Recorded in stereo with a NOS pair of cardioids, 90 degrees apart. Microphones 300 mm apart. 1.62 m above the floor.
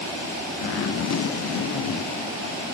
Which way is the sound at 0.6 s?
50° left.